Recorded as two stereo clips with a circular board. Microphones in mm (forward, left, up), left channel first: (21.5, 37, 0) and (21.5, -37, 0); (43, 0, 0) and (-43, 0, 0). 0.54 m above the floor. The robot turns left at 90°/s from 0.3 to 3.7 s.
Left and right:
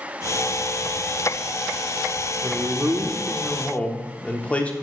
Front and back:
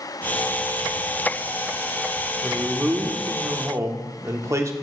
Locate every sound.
2.4 s a man speaking: 95° right, 0.9 m; by 4.7 s 150° left, 0.9 m